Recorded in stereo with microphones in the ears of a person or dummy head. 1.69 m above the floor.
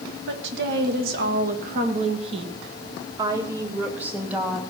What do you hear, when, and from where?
0.3 s a woman speaking: 65° right (ahead or behind), 2 m; by 4.6 s 10° right (ahead or behind), 2.5 m